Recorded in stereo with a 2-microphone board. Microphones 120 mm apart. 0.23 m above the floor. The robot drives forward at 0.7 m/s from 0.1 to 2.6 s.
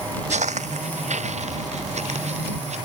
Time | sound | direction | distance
0.3 | footsteps | 75° right (ahead or behind) | ?